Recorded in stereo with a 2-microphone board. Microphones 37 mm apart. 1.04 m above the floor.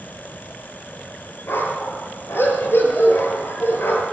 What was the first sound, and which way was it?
A dog barking, 80° left.